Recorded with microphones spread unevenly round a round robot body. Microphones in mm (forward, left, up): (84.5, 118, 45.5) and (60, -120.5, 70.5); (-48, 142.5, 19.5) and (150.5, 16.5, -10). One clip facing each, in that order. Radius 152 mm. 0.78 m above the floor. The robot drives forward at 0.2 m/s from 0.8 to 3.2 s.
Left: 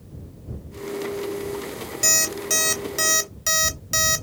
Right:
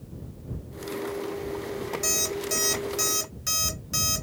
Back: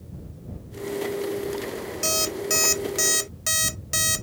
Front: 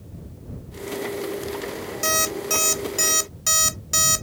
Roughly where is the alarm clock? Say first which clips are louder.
Even, front 1 dB; left.